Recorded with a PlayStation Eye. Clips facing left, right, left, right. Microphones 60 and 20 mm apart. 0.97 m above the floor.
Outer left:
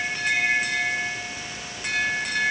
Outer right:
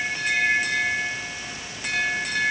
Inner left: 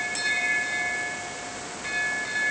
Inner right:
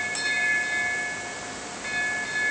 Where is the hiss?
No hiss in this recording.